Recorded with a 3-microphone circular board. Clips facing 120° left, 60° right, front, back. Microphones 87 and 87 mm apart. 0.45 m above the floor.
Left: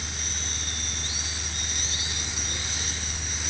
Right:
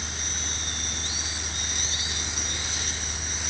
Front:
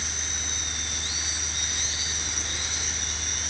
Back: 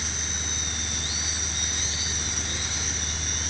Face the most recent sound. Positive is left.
No sound to turn to.